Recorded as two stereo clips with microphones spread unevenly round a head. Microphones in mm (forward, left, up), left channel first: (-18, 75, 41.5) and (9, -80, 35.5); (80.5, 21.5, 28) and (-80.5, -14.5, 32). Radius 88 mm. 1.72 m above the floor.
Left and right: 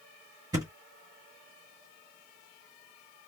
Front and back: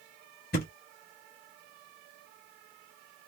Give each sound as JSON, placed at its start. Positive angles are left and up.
{"t": 0.5, "sound": "a thud", "azimuth_deg": -15, "distance_m": 1.7}